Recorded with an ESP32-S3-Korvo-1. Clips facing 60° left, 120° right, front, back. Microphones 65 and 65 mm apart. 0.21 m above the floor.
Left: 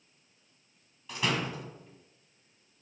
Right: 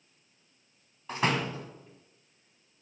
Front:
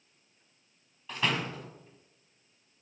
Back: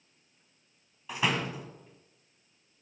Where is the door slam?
105° right, 1.3 m.